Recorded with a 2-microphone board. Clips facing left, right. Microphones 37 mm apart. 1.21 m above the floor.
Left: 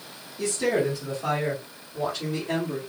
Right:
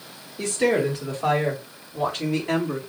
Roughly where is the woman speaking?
Right.